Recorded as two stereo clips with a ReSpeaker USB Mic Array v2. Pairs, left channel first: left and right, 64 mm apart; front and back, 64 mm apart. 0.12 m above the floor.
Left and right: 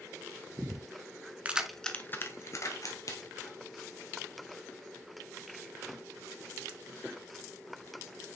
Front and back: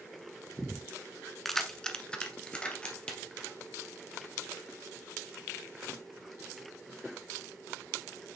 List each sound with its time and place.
1.4 s keys jangling: 85° right, 0.8 m; by 3.6 s 75° left, 2.5 m